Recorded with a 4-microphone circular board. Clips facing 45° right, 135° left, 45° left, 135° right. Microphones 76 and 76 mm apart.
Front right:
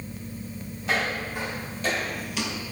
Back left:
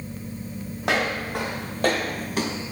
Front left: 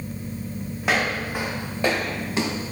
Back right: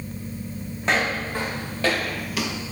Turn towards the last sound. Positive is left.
turn(degrees=75)